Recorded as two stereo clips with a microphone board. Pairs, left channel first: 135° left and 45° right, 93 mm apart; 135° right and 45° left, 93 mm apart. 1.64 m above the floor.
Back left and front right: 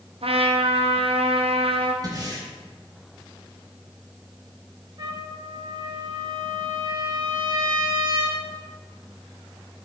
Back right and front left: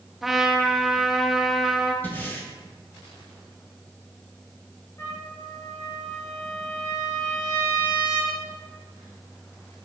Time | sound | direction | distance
0.2 | a trumpet | 45° right | 0.6 m
2.0 | breathing | 70° right | 1.1 m
5.0 | a trumpet | 80° right | 1.9 m